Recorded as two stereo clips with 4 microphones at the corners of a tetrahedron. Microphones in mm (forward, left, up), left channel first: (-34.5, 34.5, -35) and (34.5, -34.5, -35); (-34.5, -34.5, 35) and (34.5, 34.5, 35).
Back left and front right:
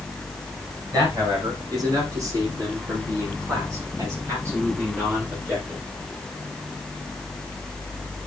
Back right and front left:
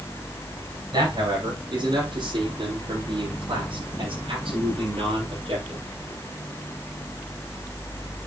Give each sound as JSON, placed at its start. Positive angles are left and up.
{"t": 0.9, "sound": "a man speaking", "azimuth_deg": 5, "distance_m": 6.5}